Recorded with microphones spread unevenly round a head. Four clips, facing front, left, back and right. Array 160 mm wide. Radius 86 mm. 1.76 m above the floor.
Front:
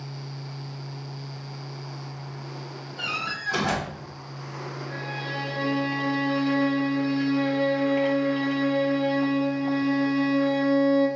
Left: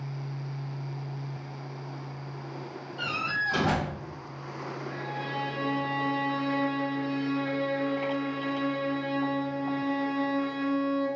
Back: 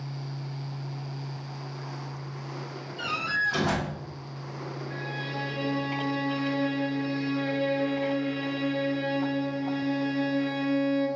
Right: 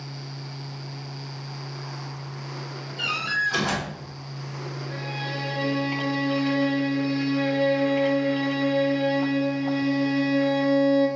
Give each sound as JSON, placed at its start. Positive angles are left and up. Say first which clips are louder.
{"t": 3.0, "sound": "a door slam", "louder": "right 4 dB, back 3 dB", "azimuth_deg": 10, "distance_m": 2.5}
{"t": 4.9, "sound": "a violin", "louder": "right 2 dB, front 3 dB", "azimuth_deg": -50, "distance_m": 0.9}